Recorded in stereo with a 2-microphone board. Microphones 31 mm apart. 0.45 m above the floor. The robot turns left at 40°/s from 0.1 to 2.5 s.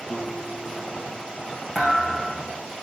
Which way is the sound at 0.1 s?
140° right.